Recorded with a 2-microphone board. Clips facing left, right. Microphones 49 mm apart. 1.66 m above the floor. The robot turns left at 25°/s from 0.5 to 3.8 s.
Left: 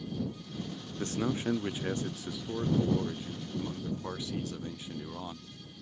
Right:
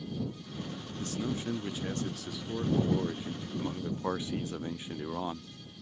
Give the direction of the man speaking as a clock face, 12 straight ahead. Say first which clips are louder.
Left 3 dB; 10 o'clock.